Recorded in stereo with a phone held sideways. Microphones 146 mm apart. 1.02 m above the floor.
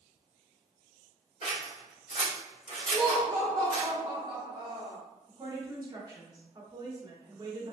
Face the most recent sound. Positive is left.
turn(degrees=-25)  # may be behind; listen again after turning